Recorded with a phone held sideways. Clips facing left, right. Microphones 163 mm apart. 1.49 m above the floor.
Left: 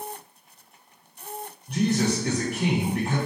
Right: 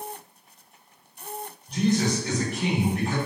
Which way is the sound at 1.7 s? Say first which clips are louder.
Even; 55° left (ahead or behind).